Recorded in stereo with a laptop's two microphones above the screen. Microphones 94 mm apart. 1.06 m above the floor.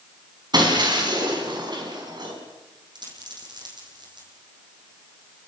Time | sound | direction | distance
0.5 | breaking glass | 50° right (ahead or behind) | 5 m
3.0 | a dropped coin | 50° right (ahead or behind) | 7 m